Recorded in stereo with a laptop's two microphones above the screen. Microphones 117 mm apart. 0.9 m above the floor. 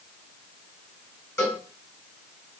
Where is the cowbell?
25° left (ahead or behind), 1.0 m.